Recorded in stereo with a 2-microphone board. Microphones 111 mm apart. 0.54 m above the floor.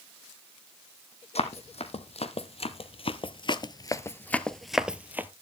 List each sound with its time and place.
1.4 s running footsteps: 70° left (ahead or behind), 1.6 m; by 5.3 s 20° right (ahead or behind), 0.8 m